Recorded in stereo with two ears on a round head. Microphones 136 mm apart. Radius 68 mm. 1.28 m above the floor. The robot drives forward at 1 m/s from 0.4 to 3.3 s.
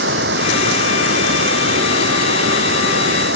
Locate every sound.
0.0 s running water: 85° right; by 3.4 s 80° right